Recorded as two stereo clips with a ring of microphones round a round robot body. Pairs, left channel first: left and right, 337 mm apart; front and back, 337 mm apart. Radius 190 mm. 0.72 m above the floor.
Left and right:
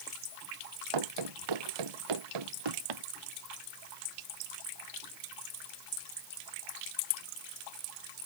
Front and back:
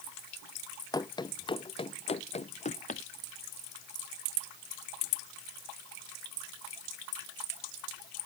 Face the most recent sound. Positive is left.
turn(degrees=-70)